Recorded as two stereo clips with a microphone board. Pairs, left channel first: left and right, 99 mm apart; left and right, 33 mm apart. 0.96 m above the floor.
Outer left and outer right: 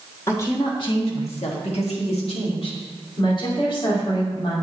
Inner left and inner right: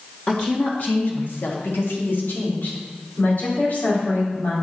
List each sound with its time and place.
0.3 s a woman speaking: 30° left (ahead or behind), 1.4 m; by 2.8 s 60° left (ahead or behind), 2.5 m
3.2 s a woman speaking: 50° left (ahead or behind), 3 m